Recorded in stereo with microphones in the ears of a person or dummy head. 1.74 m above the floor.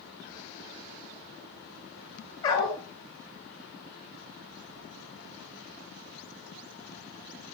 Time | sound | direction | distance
2.4 | a dog barking | 25° left (ahead or behind) | 2.5 m